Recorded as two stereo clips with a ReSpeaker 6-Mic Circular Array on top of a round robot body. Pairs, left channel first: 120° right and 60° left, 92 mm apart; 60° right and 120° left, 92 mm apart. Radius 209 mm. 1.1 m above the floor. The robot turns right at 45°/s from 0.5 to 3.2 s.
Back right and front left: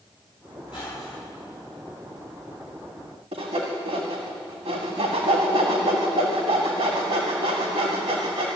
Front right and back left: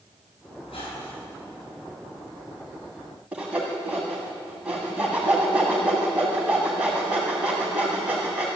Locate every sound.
0.6 s a squeak: 85° right, 7 m; by 1.3 s 55° right, 7 m
3.3 s sawing: 40° left, 1.5 m